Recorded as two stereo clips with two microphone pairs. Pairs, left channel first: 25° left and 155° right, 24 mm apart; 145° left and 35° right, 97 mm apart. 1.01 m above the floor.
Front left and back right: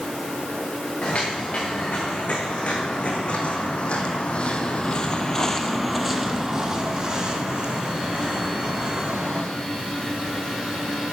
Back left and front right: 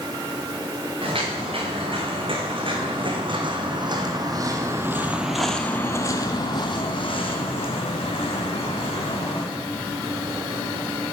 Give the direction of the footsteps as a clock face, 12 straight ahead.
12 o'clock.